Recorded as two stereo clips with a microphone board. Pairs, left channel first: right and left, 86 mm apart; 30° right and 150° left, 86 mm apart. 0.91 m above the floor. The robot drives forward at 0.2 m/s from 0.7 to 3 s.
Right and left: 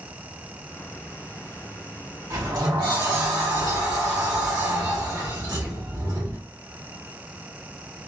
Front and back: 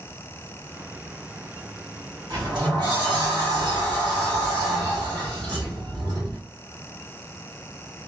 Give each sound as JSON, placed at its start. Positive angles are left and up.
{"t": 2.3, "sound": "a sliding door", "azimuth_deg": 125, "distance_m": 1.7}